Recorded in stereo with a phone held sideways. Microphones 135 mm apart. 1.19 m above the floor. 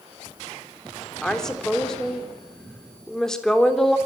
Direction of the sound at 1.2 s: 5° left (ahead or behind).